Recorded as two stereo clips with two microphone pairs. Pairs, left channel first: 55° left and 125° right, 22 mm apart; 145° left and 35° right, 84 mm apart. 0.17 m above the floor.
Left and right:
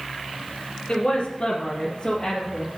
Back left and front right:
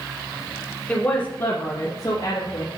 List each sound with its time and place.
0.9 s a woman speaking: 80° left, 1.7 m; by 2.7 s 120° left, 3.5 m